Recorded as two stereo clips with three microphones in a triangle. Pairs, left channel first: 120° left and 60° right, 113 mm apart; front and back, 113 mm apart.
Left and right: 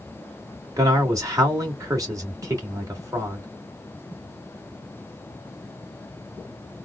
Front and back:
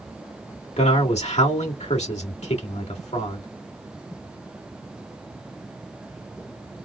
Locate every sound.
0.8 s a man speaking: straight ahead, 1.9 m